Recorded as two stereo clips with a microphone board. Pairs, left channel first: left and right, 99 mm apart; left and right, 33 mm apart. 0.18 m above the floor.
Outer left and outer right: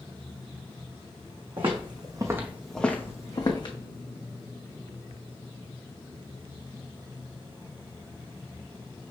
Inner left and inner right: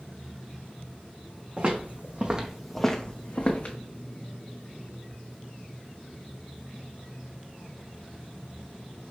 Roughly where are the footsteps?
Right.